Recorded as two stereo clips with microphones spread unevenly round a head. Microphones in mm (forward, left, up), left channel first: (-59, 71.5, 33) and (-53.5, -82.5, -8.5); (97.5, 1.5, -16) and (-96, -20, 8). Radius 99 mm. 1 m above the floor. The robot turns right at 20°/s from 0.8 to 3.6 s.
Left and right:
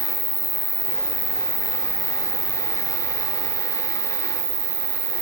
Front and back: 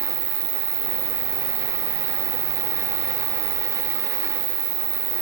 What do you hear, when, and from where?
0.0 s an insect: 170° left, 1.7 m; by 5.2 s 135° right, 1.7 m